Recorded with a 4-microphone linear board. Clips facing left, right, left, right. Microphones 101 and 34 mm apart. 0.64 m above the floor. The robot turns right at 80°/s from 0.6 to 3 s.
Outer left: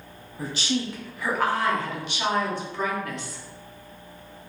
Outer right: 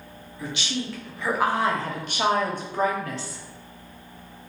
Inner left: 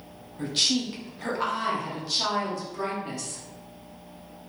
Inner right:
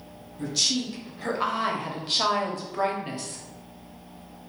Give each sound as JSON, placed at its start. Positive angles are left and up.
{"t": 0.4, "sound": "a woman speaking", "azimuth_deg": 130, "distance_m": 0.8}